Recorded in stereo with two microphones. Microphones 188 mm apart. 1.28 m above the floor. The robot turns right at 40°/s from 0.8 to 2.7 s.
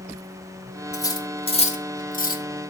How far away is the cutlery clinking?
About 0.9 m.